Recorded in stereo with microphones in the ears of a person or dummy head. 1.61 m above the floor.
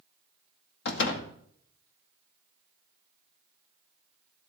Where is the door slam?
70° left (ahead or behind), 1.9 m.